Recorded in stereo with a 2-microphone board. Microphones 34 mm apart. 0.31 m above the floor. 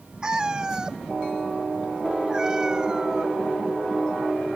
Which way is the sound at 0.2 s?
20° right (ahead or behind).